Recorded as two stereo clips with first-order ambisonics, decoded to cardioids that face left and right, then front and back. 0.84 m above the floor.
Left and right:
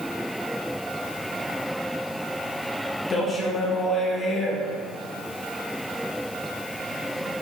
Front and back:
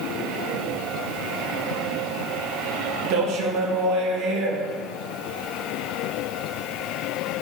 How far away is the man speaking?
About 0.6 m.